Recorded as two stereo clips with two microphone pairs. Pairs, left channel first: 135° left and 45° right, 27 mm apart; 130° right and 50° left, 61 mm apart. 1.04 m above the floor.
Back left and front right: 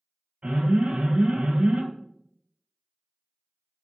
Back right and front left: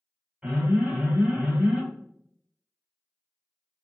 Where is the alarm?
30° right, 2 m.